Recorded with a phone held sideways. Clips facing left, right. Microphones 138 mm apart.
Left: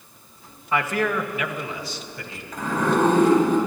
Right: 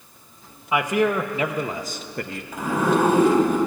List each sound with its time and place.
0.7 s a man speaking: 10° right (ahead or behind), 1.0 m; by 2.4 s 60° right (ahead or behind), 1.0 m
2.5 s a zipper: 10° right (ahead or behind), 4 m